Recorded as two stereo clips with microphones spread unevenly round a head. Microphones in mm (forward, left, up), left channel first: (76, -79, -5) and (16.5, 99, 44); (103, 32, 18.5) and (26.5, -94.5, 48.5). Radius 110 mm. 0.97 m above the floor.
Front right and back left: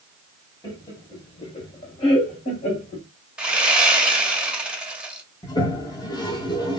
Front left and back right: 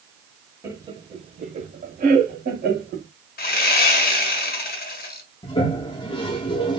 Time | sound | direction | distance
0.6 | laughter | 45° right | 0.9 m
3.4 | sawing | 35° left | 0.6 m
5.4 | a toilet flushing | 5° left | 0.5 m